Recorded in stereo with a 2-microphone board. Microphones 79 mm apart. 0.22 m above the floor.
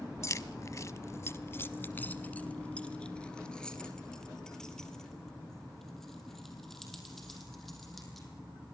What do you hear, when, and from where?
0.2 s keys jangling: 40° left (ahead or behind), 0.9 m; by 8.3 s centre (ahead or behind), 5.5 m